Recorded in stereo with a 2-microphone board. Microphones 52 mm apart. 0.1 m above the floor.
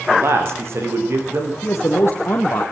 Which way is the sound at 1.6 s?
45° left (ahead or behind).